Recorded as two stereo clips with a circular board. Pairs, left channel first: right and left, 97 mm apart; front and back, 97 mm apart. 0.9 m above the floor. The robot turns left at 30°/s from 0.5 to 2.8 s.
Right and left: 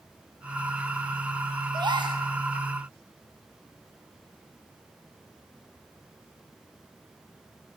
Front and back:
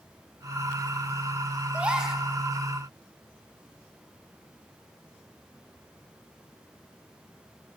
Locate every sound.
1.7 s a gasp: 110° left, 1.0 m; by 2.2 s 95° left, 1.0 m